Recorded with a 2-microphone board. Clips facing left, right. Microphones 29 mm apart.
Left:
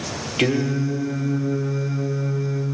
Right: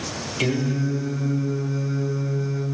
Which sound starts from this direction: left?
Singing, at 0.4 s.